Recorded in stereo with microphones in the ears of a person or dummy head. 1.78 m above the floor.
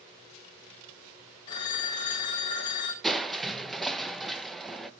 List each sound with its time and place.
1.5 s a phone ringing: 15° left (ahead or behind), 0.6 m
3.0 s crushing: 5° left (ahead or behind), 0.8 m